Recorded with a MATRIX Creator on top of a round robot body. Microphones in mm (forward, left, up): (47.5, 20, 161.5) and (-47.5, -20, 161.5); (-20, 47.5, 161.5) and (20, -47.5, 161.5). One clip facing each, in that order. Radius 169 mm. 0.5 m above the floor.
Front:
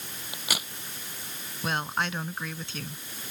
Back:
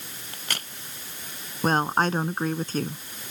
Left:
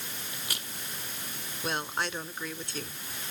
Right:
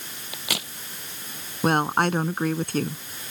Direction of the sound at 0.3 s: 60° right.